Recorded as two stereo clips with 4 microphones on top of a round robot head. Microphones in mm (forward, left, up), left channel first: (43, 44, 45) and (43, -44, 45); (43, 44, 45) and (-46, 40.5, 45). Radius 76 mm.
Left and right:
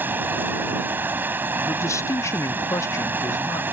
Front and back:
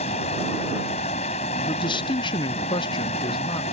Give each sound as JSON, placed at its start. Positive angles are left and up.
{"t": 0.0, "sound": "running water", "azimuth_deg": -20}
{"t": 1.7, "sound": "a man speaking", "azimuth_deg": 35}